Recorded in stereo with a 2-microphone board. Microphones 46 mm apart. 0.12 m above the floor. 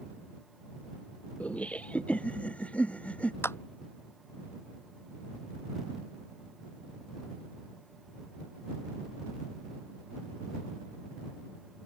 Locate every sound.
1.4 s laughter: 30° left (ahead or behind)
3.4 s a clap: 70° left (ahead or behind)